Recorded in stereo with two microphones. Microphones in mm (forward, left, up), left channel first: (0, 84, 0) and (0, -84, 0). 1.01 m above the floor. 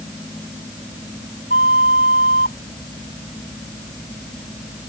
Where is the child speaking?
I don't hear a child speaking.